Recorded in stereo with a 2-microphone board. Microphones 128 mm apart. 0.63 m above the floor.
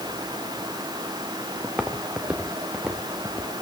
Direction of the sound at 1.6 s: 10° right (ahead or behind).